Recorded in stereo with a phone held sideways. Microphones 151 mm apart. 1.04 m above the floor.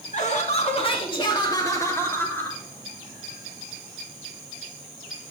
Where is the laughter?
55° left (ahead or behind), 2 m; by 2.6 s 10° left (ahead or behind), 3 m.